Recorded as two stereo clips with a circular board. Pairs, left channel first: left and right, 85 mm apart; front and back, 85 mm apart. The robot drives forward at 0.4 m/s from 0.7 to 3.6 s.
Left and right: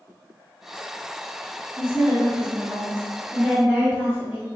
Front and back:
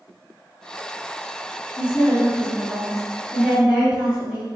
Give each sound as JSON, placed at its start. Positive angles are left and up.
{"t": 1.8, "sound": "a woman speaking", "azimuth_deg": -35, "distance_m": 1.1}